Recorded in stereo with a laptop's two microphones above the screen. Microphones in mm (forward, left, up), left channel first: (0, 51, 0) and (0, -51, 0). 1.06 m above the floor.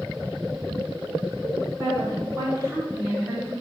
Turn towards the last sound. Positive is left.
turn(degrees=-30)  # may be behind; listen again after turning